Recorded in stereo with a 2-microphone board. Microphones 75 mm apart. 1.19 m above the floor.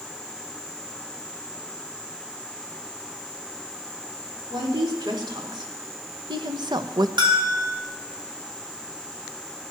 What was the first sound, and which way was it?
A woman speaking, 85° right.